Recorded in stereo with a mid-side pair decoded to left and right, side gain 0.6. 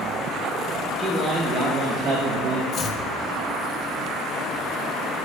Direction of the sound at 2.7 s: 45° left.